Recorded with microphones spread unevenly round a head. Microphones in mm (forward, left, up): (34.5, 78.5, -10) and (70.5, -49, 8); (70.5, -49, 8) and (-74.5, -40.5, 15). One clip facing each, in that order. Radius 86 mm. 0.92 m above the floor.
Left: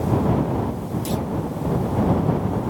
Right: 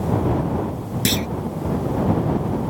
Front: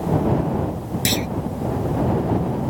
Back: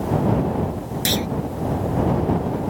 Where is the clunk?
80° right.